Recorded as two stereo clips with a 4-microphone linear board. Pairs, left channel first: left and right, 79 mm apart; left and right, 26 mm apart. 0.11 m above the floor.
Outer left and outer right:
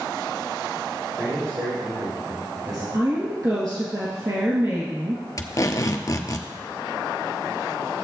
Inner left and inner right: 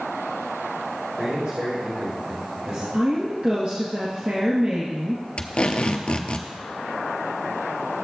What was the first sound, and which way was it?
A man speaking, 45° right (ahead or behind).